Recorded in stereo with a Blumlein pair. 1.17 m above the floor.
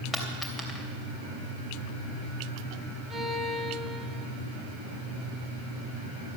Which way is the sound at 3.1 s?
5° right.